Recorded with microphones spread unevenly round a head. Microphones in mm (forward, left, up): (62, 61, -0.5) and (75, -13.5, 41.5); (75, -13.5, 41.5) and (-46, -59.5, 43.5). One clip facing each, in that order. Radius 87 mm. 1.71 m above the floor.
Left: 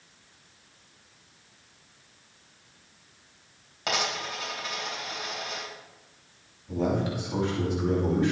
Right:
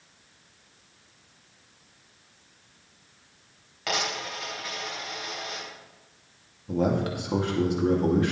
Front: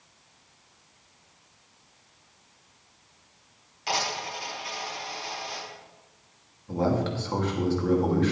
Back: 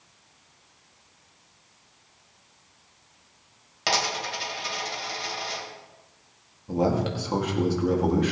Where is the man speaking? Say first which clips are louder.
Right 2 dB, back 2 dB; 85° right, 2.5 m.